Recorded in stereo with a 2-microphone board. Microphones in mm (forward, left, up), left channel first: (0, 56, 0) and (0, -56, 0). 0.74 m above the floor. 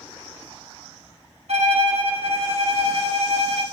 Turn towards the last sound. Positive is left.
turn(degrees=-65)  # may be behind; listen again after turning